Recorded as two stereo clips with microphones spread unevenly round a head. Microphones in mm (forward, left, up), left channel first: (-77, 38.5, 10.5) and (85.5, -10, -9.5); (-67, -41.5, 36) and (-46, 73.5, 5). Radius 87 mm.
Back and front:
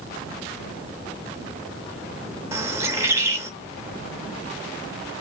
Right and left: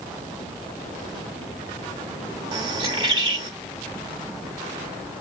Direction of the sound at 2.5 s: 50° left.